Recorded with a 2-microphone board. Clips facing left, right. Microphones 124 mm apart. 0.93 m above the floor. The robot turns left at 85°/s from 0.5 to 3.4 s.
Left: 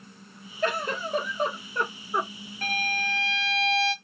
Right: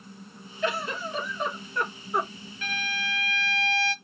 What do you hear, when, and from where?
0.6 s a giggle: 125° left, 1.0 m; by 2.3 s 15° right, 1.0 m
2.6 s a violin: 110° left, 0.6 m; by 3.9 s 45° left, 0.6 m